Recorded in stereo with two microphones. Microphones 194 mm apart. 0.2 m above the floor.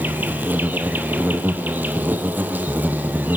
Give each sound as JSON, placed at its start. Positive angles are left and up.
{"t": 0.0, "sound": "an insect", "side_deg": -10, "distance_m": 1.7}